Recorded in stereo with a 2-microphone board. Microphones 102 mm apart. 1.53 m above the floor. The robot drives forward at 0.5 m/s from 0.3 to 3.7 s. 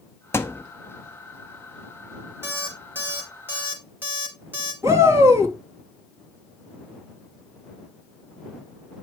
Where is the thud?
25° left (ahead or behind), 1.0 m.